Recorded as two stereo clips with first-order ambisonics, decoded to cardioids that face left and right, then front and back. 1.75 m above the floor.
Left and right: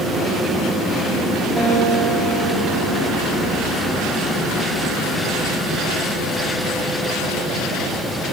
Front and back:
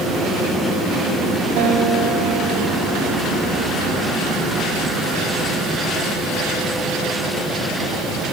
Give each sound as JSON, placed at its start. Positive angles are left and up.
{"t": 1.6, "sound": "a guitar", "azimuth_deg": -175, "distance_m": 8.5}